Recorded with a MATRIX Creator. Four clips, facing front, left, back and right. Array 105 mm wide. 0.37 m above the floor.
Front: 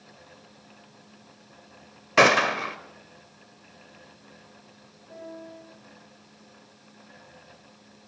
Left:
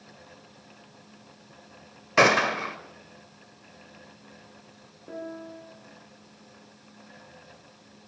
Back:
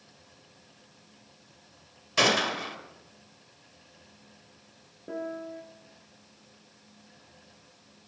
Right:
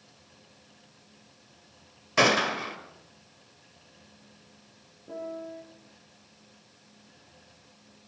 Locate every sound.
2.2 s a gunshot: 30° left, 1.2 m
5.1 s a piano: 160° left, 2.5 m